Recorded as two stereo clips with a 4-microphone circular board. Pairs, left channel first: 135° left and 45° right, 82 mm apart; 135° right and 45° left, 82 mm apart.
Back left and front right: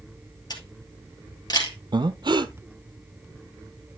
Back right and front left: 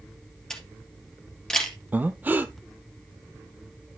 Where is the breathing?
25° right, 0.6 m.